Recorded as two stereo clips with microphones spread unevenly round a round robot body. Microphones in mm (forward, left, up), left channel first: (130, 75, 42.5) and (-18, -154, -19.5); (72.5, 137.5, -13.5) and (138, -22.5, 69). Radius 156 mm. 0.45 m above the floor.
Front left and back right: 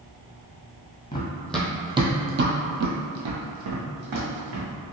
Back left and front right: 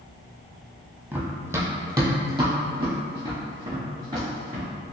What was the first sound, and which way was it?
Running footsteps, 5° right.